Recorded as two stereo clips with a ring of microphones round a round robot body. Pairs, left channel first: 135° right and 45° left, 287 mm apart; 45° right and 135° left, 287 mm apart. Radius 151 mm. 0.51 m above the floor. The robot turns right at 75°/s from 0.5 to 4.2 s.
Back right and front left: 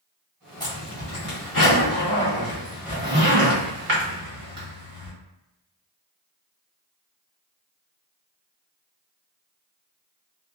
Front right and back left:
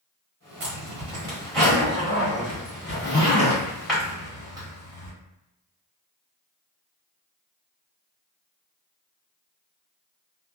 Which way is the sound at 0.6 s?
155° left.